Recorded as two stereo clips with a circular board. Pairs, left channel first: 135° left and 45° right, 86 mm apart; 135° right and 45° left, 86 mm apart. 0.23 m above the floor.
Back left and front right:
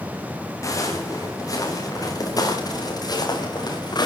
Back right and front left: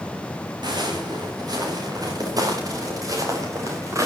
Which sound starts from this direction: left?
Footsteps, at 0.6 s.